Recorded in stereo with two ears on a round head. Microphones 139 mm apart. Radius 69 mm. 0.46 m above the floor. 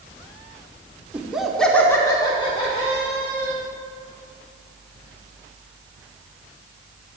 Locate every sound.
1.1 s laughter: 10° right (ahead or behind), 1.0 m; by 3.6 s 45° left (ahead or behind), 1.5 m